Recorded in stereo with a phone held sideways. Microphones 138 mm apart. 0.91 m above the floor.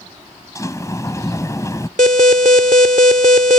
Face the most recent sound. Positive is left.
turn(degrees=-70)  # may be behind; listen again after turning